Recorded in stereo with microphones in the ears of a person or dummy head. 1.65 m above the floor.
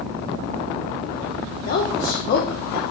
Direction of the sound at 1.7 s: 45° left (ahead or behind).